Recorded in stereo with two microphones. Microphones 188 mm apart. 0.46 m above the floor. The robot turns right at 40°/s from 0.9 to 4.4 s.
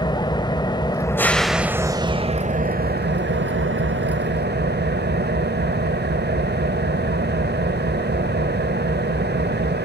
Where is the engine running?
155° left, 0.8 m; by 9.9 s 65° right, 0.8 m.